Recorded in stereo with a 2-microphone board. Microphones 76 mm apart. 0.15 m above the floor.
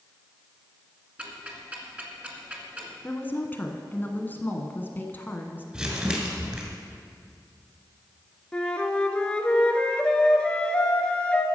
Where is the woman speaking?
25° left (ahead or behind), 1.1 m.